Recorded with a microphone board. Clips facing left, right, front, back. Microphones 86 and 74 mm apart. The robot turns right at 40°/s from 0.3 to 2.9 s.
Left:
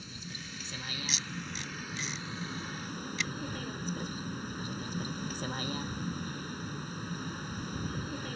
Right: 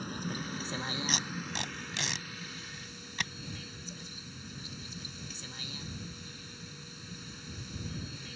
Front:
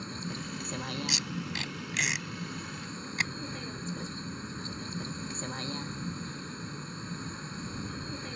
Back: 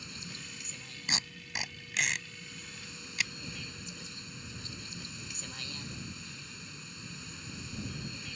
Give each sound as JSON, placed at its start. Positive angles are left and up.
{"t": 0.0, "sound": "a vehicle", "azimuth_deg": -55}
{"t": 1.1, "sound": "tape being pulled", "azimuth_deg": -130}